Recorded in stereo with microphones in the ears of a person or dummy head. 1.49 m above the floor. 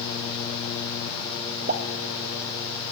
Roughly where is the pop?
Right.